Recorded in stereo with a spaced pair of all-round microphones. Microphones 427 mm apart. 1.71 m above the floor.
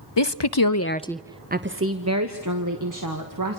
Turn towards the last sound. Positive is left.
turn(degrees=-50)  # may be behind; listen again after turning